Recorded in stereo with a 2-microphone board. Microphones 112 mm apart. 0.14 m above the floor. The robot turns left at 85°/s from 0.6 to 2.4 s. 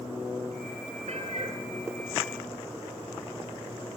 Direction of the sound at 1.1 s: 90° right.